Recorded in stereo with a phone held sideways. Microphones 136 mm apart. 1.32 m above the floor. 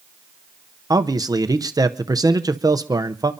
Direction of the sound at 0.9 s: 25° right (ahead or behind).